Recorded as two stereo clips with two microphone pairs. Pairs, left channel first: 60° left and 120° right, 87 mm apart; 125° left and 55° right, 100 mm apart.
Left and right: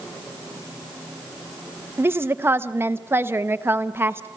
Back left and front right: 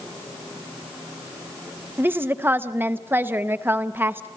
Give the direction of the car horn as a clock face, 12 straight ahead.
No car horn in this recording.